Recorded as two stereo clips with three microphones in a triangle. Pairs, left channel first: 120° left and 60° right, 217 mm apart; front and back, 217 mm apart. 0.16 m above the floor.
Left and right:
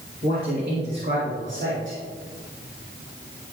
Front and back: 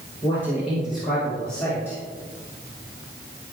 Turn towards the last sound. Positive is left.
turn(degrees=-80)